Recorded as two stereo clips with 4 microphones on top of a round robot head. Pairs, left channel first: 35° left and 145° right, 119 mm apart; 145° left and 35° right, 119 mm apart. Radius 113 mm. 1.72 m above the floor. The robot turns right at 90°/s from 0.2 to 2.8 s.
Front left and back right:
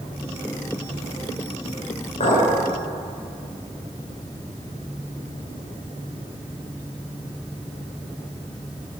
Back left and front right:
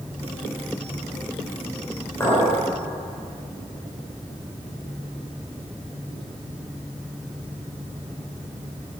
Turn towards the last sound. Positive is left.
turn(degrees=125)